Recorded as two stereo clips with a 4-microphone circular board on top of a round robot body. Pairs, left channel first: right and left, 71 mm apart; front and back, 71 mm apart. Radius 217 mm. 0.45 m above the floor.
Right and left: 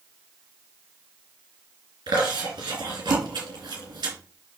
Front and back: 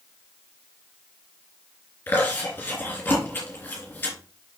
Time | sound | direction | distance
2.1 | chewing | 65° left | 3 m